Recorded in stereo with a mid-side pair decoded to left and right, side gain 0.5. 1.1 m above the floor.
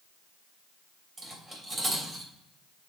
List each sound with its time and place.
1.2 s cutlery clinking: 30° right, 3 m